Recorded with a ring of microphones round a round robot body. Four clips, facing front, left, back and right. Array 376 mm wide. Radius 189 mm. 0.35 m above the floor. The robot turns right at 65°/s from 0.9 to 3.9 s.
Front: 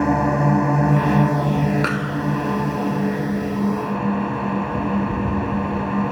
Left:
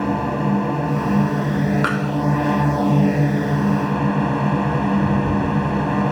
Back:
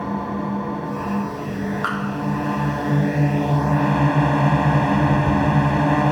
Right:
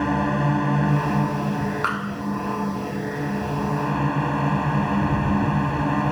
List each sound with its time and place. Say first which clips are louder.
0.0 s a drone: left 1 dB, front 7 dB; 15° right; by 6.1 s straight behind
1.8 s a clap: left 5 dB, front 1 dB; 40° left; by 2.2 s 65° left